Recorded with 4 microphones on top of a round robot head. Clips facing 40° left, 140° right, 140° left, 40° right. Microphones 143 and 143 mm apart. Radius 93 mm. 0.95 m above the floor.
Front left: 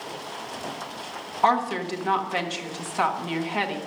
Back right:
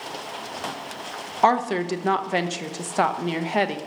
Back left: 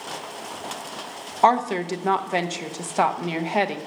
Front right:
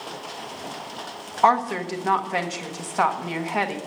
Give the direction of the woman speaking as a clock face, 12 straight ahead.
5 o'clock.